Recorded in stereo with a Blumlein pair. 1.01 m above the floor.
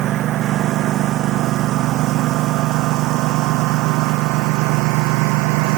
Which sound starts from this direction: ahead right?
A lawn mower, at 0.0 s.